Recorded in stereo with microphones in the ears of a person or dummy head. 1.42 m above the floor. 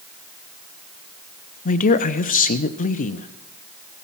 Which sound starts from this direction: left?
A man speaking, at 1.6 s.